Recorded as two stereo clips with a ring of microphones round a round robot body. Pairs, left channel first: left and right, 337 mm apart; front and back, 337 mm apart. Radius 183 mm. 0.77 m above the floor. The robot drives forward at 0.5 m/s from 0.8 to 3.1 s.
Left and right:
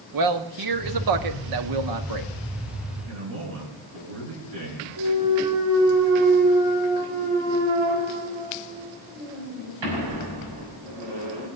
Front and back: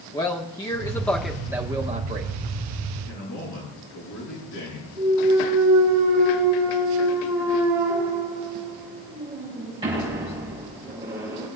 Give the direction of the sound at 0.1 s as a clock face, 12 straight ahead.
3 o'clock.